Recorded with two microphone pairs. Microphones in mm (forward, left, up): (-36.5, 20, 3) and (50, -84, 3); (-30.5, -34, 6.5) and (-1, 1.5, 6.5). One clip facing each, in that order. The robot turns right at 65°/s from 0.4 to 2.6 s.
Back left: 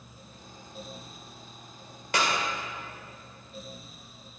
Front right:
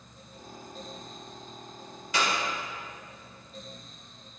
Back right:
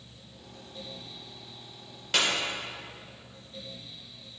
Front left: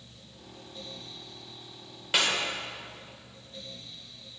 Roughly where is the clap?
Behind left.